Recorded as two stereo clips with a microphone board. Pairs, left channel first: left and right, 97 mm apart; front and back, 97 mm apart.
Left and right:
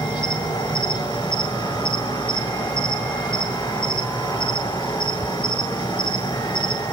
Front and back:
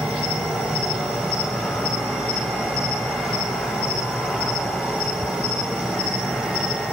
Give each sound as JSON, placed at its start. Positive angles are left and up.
{"t": 0.0, "sound": "an insect", "azimuth_deg": 95, "distance_m": 1.3}